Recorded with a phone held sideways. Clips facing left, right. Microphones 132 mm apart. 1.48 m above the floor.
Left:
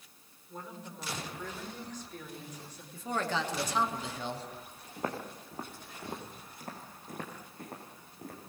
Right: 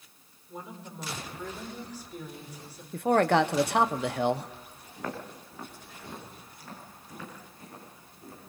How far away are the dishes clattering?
I don't hear dishes clattering.